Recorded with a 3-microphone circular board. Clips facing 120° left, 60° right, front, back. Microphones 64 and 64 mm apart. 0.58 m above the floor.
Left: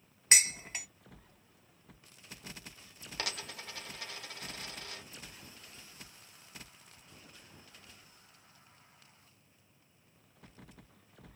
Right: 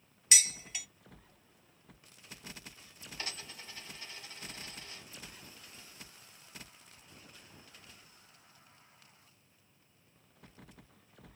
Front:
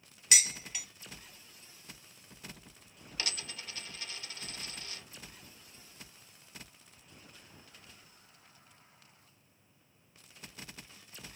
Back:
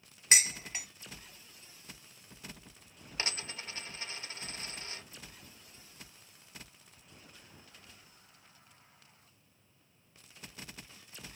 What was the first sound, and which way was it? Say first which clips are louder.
Dishes clattering: left 3 dB, back 2 dB; 140° left.